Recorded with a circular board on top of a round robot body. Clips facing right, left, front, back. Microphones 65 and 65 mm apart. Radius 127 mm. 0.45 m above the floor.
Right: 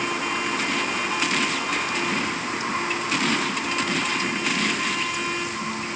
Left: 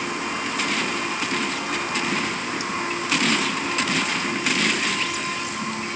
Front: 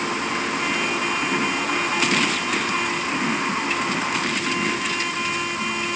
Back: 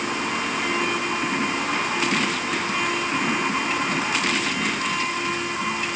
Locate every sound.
Only background noise.